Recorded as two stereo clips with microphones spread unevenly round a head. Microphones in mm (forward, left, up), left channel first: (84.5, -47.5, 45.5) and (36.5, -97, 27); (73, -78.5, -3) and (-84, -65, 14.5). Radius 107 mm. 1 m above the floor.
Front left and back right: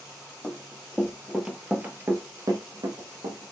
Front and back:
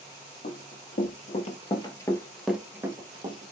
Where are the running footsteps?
25° right, 1.9 m; by 3.5 s 160° right, 1.4 m.